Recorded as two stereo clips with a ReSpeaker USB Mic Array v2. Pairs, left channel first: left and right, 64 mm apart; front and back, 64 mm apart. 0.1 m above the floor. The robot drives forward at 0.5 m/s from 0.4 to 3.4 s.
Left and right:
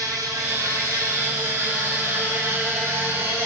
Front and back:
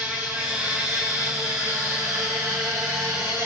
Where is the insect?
110° right, 1.3 m; by 3.5 s 150° right, 2.5 m.